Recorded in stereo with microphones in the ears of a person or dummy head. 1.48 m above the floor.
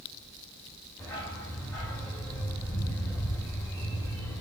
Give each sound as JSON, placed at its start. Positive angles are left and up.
{"t": 1.0, "sound": "a dog barking", "side_deg": 5, "distance_m": 2.5}